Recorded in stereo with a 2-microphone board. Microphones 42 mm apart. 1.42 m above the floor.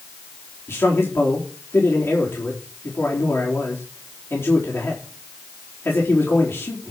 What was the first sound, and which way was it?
A man speaking, 65° left (ahead or behind).